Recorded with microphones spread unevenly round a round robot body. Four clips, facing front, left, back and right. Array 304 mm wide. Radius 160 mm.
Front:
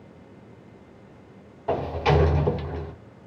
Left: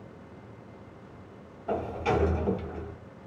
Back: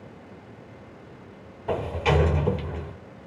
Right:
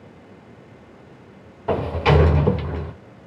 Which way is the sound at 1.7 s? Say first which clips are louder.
Right 9 dB, front 2 dB; 90° right.